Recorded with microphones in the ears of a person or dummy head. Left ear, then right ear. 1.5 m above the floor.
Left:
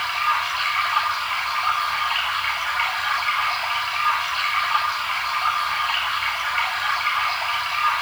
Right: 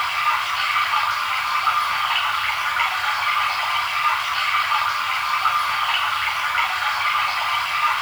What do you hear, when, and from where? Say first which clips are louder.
0.0 s running water: right 1 dB; 25° right (ahead or behind), 7.5 m